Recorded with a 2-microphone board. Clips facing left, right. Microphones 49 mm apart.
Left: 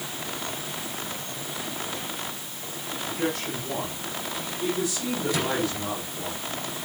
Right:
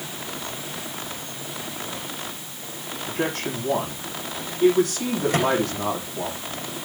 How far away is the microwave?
About 8 m.